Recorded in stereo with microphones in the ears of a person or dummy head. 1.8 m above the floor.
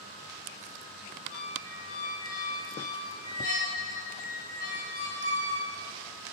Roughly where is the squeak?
Left.